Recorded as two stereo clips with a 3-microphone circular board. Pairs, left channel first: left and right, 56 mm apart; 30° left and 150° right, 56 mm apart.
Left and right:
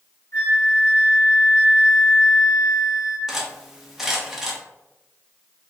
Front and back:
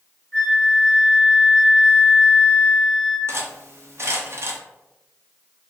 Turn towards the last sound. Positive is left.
turn(degrees=-170)